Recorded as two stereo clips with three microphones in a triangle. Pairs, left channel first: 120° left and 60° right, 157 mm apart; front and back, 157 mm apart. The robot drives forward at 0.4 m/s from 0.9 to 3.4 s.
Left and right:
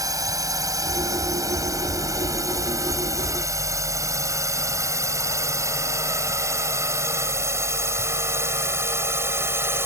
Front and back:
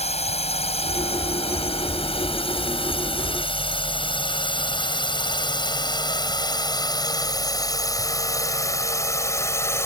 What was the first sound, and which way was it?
A drone, 5° right.